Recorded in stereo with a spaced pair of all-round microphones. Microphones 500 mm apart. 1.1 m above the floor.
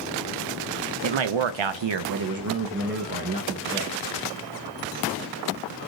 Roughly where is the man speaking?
Right.